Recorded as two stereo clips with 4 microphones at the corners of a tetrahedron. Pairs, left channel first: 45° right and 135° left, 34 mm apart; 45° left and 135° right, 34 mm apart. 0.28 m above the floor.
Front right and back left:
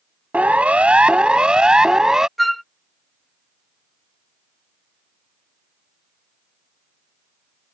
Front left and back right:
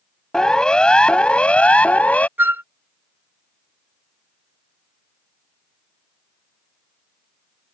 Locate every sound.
0.3 s a siren: 105° left; by 2.3 s 70° left
2.4 s a flute: 130° right